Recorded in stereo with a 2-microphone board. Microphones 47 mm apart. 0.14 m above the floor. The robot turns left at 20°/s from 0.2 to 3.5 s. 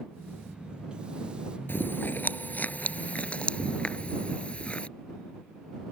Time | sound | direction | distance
1.7 | chewing | 55° left (ahead or behind) | ?